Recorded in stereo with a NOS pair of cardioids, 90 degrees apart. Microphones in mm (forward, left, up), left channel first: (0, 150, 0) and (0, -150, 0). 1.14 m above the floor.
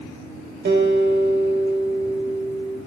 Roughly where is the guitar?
Ahead right.